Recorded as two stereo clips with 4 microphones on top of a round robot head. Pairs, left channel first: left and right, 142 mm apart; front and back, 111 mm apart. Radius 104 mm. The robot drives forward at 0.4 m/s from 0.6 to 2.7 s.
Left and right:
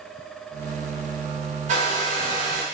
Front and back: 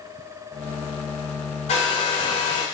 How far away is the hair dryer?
About 1.2 m.